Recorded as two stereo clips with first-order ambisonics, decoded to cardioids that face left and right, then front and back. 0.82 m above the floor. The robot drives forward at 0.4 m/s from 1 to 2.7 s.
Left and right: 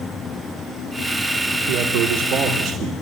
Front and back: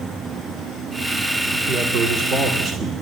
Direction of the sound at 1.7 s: 115° right.